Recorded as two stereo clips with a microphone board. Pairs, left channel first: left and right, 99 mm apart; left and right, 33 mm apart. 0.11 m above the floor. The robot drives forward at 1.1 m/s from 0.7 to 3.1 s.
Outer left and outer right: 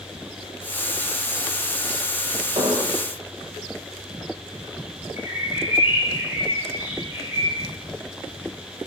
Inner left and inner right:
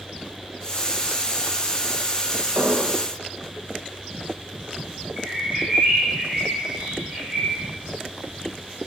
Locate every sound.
2.5 s an explosion: 65° right (ahead or behind), 6 m; by 3.0 s 60° right (ahead or behind), 6 m
5.2 s a bird: 25° right (ahead or behind), 5.5 m